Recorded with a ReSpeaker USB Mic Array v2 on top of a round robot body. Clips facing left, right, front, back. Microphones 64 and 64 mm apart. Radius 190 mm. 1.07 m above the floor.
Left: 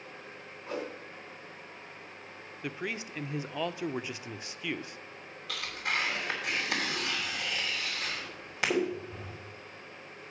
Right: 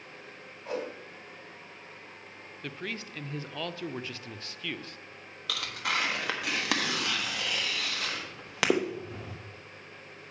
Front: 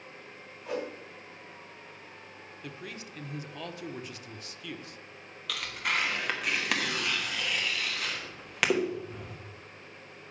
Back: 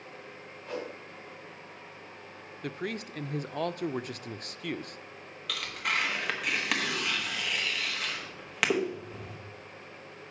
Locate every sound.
0.7 s a whoosh: 80° right, 3 m
2.6 s a man speaking: 165° left, 0.6 m
5.5 s tearing paper: 90° right, 1.3 m